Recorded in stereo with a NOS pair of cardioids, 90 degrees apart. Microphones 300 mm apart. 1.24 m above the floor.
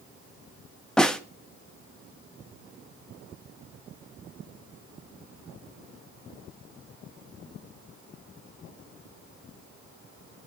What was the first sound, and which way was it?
A snare drum, straight ahead.